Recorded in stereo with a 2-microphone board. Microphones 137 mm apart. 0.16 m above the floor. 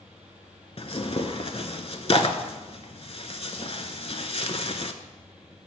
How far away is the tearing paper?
About 0.6 m.